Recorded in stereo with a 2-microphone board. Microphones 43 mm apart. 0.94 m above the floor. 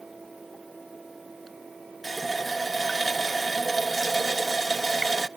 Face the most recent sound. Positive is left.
turn(degrees=0)  # may be behind; listen again after turning